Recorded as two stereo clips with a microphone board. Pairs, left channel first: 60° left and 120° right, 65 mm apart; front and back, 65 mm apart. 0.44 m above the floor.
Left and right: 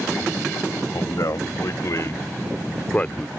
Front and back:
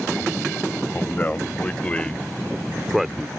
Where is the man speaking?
60° left; by 3.3 s 120° left.